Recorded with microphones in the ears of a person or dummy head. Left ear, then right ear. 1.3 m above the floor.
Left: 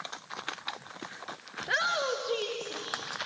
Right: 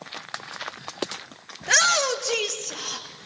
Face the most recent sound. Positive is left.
turn(degrees=-55)  # may be behind; listen again after turning